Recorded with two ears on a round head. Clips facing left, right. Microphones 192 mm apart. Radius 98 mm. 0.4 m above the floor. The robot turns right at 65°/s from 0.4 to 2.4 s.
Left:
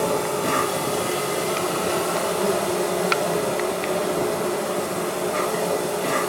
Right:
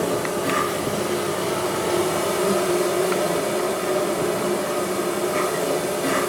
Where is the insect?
55° left, 1.1 m; by 6.3 s 175° right, 1.1 m.